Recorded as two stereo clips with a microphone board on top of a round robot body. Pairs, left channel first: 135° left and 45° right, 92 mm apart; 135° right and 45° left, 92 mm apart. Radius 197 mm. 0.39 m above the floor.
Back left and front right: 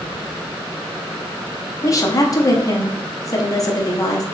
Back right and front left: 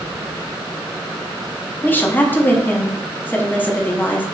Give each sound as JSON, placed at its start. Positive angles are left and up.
{"t": 1.8, "sound": "a woman speaking", "azimuth_deg": 165, "distance_m": 1.0}